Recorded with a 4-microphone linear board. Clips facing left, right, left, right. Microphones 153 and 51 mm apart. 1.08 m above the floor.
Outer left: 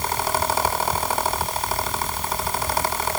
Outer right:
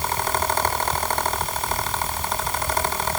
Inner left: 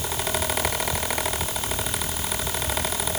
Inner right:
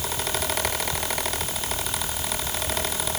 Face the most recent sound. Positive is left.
No sound to turn to.